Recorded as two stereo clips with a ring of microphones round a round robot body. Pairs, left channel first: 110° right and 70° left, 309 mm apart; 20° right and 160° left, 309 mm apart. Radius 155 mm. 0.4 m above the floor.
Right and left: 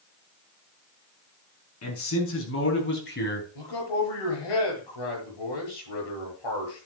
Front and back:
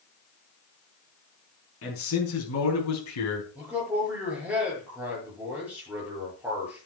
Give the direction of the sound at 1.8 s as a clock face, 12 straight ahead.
2 o'clock.